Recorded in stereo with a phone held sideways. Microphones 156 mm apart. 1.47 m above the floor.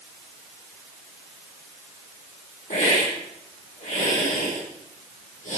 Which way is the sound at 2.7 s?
55° left (ahead or behind).